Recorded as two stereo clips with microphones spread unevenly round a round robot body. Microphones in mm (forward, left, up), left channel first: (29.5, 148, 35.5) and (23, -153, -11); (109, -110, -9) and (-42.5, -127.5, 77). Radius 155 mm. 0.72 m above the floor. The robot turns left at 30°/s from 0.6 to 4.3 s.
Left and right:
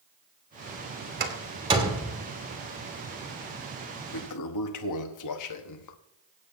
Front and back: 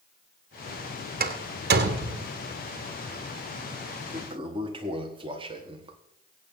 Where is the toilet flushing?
105° left, 1.2 m; by 6.0 s 100° left, 1.2 m.